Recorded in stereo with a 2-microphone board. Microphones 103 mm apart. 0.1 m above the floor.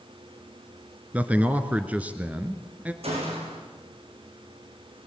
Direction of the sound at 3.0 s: 80° right.